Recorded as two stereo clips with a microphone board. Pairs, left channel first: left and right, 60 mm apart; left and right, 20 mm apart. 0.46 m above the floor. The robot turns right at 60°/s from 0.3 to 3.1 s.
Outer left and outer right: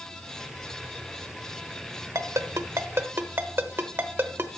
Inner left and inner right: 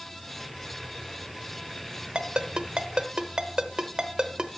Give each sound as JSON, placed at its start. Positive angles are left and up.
{"t": 2.1, "sound": "a ringtone", "side_deg": -60, "distance_m": 0.9}